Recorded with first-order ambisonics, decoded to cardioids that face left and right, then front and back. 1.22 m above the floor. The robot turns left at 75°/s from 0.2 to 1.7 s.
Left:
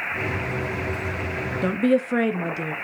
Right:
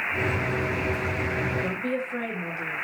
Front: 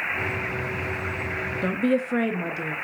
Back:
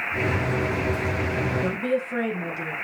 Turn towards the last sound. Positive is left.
turn(degrees=75)